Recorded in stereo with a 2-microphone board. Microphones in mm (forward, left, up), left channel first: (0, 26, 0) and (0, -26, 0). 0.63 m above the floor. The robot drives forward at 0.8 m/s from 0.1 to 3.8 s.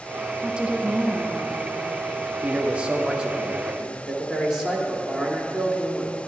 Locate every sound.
0.4 s a woman speaking: 15° right (ahead or behind), 0.7 m; by 1.9 s 10° right (ahead or behind), 1.0 m
2.4 s a man speaking: 30° right (ahead or behind), 0.6 m; by 6.2 s 10° right (ahead or behind), 1.4 m